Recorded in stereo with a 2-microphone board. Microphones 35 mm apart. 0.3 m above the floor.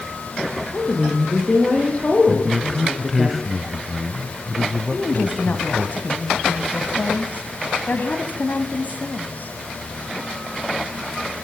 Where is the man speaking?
5° right (ahead or behind), 1.3 m.